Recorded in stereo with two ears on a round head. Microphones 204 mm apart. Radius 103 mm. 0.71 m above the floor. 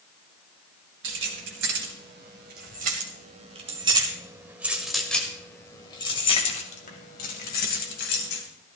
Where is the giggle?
I don't hear a giggle.